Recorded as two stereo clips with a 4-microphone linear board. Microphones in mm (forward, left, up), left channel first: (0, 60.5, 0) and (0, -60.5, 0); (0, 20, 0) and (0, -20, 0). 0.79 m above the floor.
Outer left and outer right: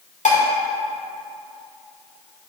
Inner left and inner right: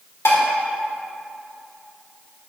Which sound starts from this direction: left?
Dishes clattering, at 0.2 s.